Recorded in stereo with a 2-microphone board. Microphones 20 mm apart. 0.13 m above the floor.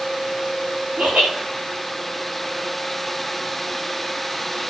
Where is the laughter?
80° right, 9 m.